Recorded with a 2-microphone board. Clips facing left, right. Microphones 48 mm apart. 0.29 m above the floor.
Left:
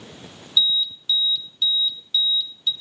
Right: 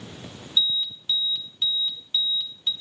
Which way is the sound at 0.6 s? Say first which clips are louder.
Left 4 dB; 25° right (ahead or behind).